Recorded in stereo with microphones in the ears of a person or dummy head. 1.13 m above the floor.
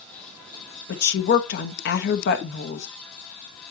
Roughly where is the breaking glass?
No breaking glass in this recording.